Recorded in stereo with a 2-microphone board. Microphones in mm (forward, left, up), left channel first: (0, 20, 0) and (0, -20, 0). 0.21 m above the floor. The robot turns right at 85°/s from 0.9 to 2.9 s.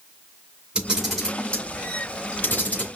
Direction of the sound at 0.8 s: 20° right (ahead or behind).